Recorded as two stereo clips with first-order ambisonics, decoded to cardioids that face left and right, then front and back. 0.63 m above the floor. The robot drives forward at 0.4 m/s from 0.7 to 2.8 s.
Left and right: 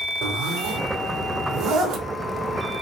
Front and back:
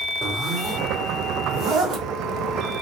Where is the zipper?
115° right, 0.8 m; by 2.1 s 145° right, 1.1 m.